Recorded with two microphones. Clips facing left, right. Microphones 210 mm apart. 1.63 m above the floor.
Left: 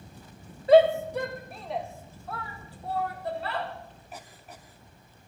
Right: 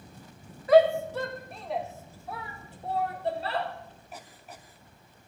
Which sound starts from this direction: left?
A shout, at 0.7 s.